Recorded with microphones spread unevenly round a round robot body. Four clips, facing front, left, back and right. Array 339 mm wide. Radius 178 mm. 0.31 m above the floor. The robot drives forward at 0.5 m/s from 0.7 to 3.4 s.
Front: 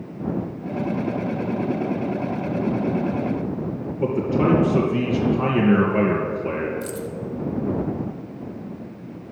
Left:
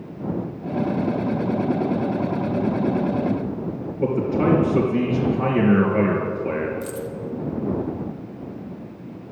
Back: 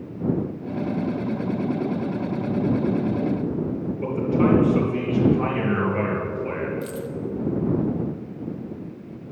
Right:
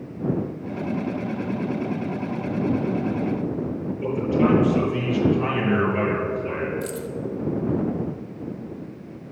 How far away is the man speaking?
About 3 m.